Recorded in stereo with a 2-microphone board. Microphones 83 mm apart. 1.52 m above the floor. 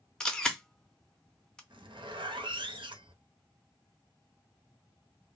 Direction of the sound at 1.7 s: 80° right.